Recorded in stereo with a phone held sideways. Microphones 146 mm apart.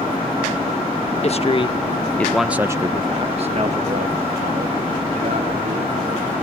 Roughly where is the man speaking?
Left.